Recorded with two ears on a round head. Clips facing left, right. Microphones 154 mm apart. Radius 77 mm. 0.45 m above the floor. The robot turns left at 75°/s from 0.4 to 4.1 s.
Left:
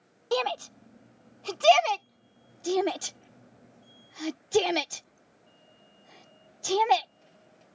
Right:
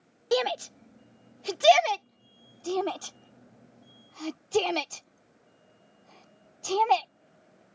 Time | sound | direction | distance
0.3 | a shout | 15° right (ahead or behind) | ?